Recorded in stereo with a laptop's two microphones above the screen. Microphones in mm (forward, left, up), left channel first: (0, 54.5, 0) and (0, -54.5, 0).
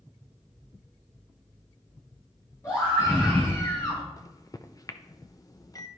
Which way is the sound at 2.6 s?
30° left (ahead or behind).